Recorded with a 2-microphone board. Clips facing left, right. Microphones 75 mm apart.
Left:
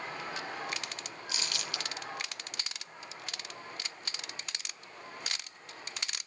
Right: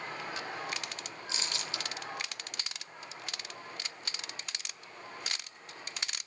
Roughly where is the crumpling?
Right.